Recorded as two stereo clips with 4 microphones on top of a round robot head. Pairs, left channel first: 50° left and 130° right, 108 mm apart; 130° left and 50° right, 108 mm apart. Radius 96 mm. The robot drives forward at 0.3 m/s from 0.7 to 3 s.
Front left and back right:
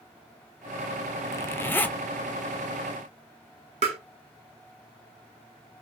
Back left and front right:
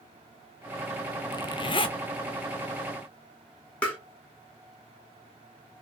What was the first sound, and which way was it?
A zipper, 100° left.